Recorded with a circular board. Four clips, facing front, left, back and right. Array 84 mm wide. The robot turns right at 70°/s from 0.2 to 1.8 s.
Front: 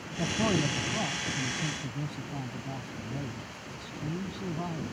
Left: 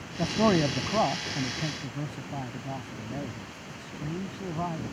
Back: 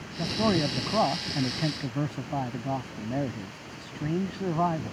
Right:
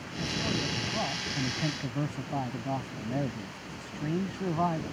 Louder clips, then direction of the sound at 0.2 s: Left 9 dB, back 3 dB; 90° left.